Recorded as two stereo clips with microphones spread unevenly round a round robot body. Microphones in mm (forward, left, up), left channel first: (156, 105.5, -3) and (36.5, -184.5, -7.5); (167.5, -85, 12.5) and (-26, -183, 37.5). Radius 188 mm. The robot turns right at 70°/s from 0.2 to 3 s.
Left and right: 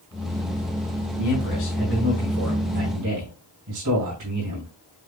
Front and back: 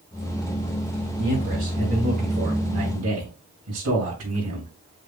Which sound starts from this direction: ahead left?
A man speaking, at 1.2 s.